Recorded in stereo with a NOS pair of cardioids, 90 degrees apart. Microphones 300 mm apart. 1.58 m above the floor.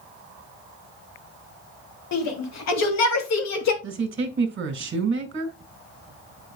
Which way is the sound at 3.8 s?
40° right.